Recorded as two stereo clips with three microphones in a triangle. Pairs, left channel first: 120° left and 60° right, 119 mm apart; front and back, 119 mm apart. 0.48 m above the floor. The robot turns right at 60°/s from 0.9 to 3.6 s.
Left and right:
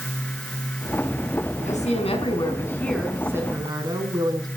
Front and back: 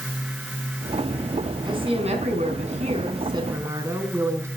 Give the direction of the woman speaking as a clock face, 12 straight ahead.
8 o'clock.